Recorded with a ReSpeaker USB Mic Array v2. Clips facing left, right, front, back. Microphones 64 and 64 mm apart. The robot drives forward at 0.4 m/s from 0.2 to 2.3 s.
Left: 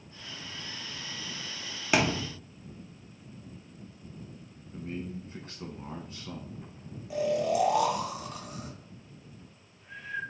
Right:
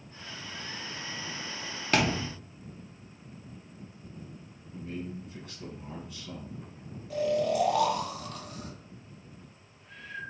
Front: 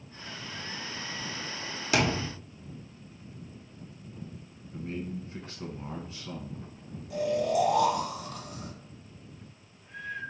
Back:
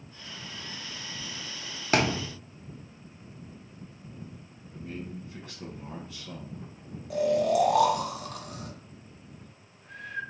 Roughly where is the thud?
Behind.